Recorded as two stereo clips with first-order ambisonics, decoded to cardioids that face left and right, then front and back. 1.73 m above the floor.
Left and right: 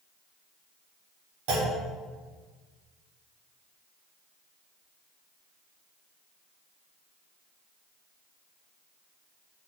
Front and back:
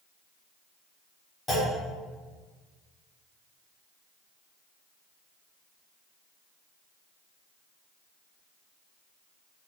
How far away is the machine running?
I don't hear a machine running.